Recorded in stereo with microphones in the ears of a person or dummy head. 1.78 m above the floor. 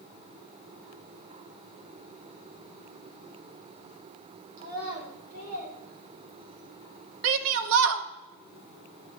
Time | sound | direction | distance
4.6 | a child speaking | 55° right (ahead or behind) | 6 m
7.2 | a shout | 70° right (ahead or behind) | 1.0 m